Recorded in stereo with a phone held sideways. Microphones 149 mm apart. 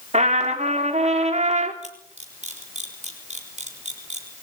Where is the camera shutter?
50° right (ahead or behind), 4.5 m.